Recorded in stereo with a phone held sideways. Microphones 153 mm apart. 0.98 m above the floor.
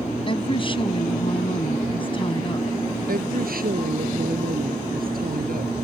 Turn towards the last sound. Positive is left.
turn(degrees=-75)  # may be behind; listen again after turning